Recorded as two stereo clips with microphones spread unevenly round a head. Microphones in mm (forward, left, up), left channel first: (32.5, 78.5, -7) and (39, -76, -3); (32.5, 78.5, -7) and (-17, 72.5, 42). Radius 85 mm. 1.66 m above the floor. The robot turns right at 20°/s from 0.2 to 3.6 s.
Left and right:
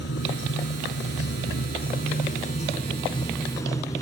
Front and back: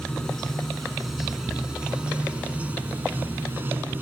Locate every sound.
0.0 s running water: 100° left; by 4.0 s 165° left